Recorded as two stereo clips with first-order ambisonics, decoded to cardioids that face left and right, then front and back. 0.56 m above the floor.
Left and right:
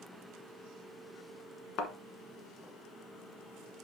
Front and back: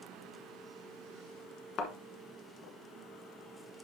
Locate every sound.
1.8 s a thud: 45° left, 1.2 m